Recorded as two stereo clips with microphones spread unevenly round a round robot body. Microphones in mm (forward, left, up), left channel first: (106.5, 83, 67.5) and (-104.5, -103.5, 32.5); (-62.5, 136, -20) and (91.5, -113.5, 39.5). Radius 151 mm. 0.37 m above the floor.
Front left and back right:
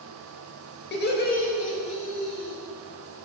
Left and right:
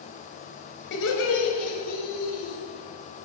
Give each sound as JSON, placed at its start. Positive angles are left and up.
{"t": 0.9, "sound": "laughter", "azimuth_deg": 95, "distance_m": 2.0}